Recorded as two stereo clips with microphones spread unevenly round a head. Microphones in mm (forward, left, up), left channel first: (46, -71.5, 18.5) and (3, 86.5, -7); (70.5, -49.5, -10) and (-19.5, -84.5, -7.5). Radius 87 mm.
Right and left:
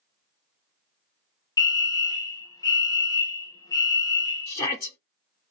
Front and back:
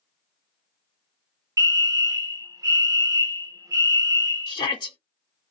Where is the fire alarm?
140° right, 0.7 m.